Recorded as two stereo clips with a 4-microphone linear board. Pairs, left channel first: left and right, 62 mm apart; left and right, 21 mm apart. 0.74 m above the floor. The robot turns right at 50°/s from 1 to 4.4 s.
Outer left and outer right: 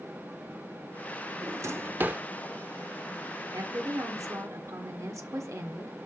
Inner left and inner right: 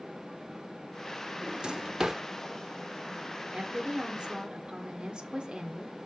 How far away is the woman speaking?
About 1.6 m.